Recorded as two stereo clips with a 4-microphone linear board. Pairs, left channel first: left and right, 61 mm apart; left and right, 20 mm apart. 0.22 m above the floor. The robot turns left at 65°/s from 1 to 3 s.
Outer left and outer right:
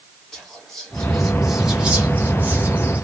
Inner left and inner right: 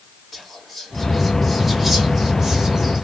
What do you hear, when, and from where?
0.3 s whispering: 5° left (ahead or behind), 1.1 m; by 3.0 s 25° right (ahead or behind), 1.1 m